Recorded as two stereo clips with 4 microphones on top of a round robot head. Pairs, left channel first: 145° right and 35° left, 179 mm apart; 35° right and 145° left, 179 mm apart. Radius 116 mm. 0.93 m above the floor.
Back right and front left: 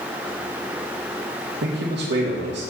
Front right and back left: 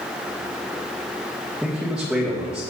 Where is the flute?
No flute in this recording.